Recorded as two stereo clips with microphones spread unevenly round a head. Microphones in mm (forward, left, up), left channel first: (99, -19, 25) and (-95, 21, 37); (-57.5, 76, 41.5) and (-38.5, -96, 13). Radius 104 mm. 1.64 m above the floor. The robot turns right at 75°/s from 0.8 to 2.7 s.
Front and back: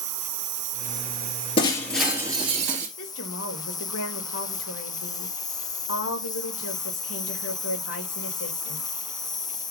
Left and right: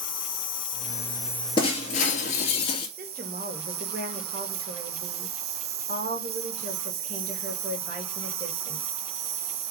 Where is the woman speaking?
35° right, 2.5 m.